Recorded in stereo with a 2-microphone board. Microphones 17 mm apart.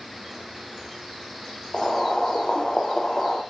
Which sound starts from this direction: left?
Boiling, at 1.7 s.